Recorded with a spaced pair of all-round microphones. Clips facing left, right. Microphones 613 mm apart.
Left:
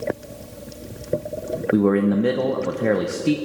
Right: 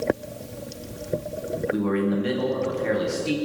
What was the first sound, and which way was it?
A man speaking, 85° left.